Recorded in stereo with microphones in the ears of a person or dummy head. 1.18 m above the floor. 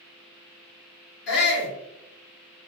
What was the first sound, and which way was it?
A shout, 55° left (ahead or behind).